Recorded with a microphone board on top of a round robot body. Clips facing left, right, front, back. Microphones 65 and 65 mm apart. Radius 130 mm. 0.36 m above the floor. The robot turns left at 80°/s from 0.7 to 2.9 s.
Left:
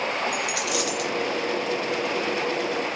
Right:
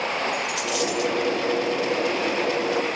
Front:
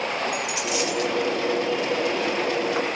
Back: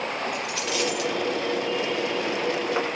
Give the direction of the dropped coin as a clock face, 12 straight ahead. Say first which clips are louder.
Right 1 dB, front 2 dB; 9 o'clock.